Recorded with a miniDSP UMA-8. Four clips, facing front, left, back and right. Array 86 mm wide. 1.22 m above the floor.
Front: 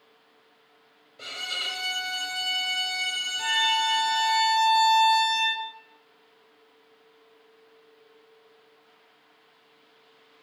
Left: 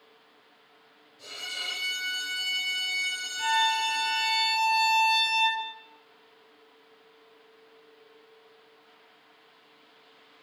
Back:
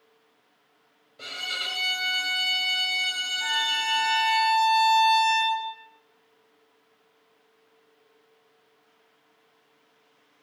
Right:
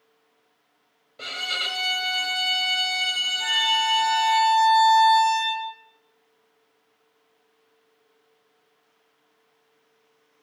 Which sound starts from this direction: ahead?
A violin, at 3.4 s.